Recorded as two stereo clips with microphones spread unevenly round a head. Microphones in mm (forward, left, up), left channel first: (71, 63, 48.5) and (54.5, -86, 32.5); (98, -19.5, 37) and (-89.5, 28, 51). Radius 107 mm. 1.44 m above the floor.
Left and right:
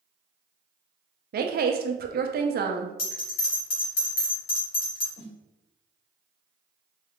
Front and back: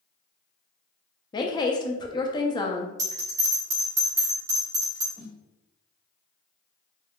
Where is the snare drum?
100° left, 1.7 m.